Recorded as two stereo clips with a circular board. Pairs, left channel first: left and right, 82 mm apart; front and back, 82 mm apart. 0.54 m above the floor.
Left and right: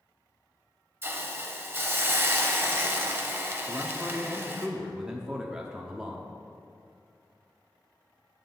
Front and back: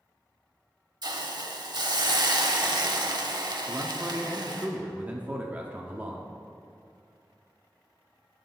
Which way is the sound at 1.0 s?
150° right.